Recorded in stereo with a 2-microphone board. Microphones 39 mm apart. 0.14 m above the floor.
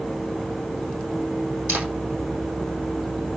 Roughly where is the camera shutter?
Right.